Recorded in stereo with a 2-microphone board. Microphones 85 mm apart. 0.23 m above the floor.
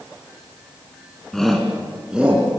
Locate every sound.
1.3 s a shout: 5° left (ahead or behind), 3 m; by 2.6 s 15° right (ahead or behind), 4 m